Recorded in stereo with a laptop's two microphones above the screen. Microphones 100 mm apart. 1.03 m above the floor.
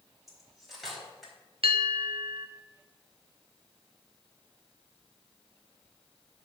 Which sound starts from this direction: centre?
Cutlery clinking, at 0.3 s.